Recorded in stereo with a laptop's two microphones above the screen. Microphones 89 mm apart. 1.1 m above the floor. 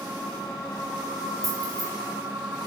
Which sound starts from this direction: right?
Keys jangling, at 1.4 s.